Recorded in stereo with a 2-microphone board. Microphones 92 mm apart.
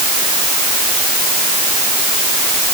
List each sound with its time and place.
Only background noise.